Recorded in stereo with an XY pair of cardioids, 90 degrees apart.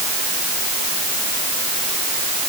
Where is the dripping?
I don't hear dripping.